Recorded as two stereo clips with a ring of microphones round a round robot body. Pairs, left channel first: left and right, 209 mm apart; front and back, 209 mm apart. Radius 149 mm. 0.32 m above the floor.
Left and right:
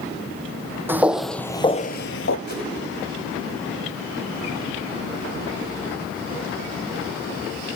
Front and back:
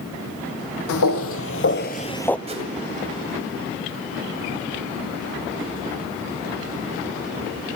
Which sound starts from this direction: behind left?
A whoosh, at 2.5 s.